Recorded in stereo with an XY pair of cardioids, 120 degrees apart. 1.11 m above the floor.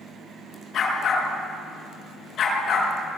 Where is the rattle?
No rattle in this recording.